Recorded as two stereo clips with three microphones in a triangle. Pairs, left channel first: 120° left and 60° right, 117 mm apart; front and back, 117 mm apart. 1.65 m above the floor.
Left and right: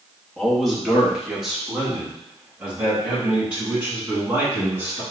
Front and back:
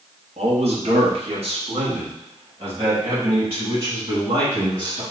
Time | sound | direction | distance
0.4 | a man speaking | 155° right | 1.3 m